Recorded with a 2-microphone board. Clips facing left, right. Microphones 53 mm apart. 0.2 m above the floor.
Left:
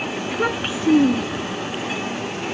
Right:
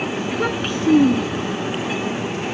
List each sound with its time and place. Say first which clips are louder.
0.2 s a child speaking: left 2 dB; 5° left (ahead or behind)